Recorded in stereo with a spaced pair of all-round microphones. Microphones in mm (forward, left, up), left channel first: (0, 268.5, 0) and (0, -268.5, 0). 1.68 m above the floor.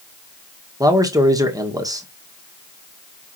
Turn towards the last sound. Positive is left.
turn(degrees=-5)  # may be behind; listen again after turning